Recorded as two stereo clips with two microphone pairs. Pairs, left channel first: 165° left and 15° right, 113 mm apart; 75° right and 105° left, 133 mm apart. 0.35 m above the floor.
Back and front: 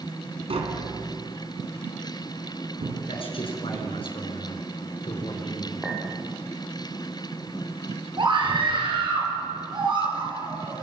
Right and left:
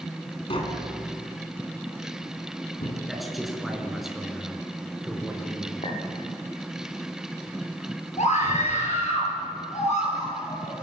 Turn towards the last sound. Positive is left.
turn(degrees=-55)